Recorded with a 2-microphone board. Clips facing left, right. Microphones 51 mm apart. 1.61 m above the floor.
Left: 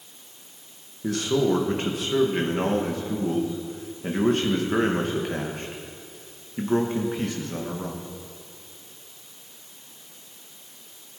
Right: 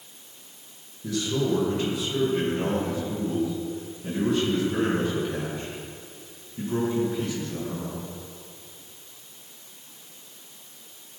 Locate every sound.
1.0 s a man speaking: 50° left (ahead or behind), 2 m